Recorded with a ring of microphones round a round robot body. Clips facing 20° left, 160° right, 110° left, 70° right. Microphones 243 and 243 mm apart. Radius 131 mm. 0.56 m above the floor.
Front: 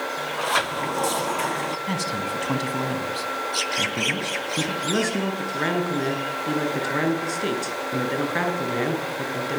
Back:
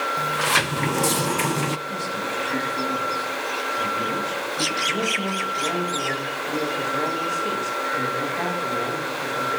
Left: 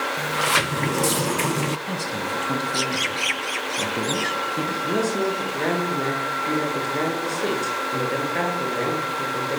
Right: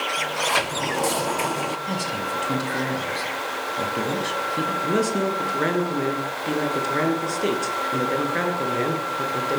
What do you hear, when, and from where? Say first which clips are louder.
0.2 s a sliding door: back 1 dB, right 1 dB; 165° left, 0.6 m
1.9 s a man speaking: front 1 dB, even; 20° left, 6 m
4.8 s a man speaking: front 6 dB, right 1 dB; 10° left, 9.5 m